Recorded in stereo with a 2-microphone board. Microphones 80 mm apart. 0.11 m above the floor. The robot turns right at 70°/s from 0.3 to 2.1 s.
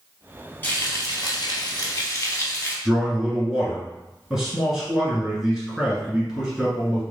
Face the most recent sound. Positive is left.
turn(degrees=-5)  # may be behind; listen again after turning